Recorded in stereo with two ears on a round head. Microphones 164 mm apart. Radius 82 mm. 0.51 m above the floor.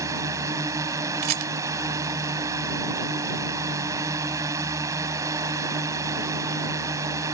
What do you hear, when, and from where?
0.0 s a drone: 20° right (ahead or behind)
1.2 s a rattle: 55° right (ahead or behind)